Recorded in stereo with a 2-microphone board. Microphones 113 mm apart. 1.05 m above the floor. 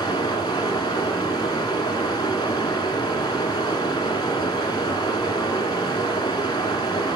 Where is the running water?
40° left (ahead or behind), 1.6 m.